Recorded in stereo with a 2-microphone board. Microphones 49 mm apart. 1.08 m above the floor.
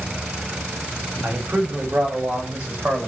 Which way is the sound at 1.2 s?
40° right (ahead or behind).